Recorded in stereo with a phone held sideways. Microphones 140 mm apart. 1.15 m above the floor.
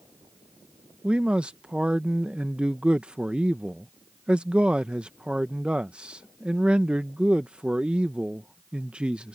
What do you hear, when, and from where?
1.0 s a man speaking: 5° right (ahead or behind)